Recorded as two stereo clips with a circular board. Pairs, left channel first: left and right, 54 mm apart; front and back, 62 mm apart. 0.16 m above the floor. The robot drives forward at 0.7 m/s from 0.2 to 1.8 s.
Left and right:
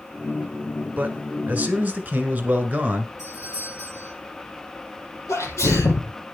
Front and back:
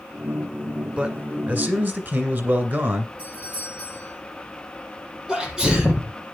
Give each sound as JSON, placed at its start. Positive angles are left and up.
{"t": 1.0, "sound": "a man speaking", "azimuth_deg": -120, "distance_m": 1.7}
{"t": 3.2, "sound": "a doorbell", "azimuth_deg": 115, "distance_m": 7.5}
{"t": 5.3, "sound": "a sneeze", "azimuth_deg": 100, "distance_m": 4.0}